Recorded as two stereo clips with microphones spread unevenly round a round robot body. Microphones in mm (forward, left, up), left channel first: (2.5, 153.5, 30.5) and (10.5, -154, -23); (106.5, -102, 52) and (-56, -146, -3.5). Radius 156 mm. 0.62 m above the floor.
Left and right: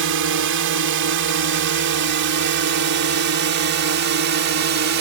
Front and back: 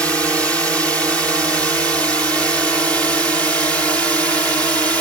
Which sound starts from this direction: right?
A drone, at 0.0 s.